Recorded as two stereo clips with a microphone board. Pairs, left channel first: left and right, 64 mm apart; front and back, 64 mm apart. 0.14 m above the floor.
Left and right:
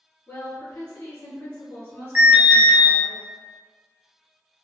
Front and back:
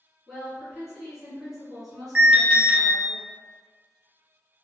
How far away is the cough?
I don't hear a cough.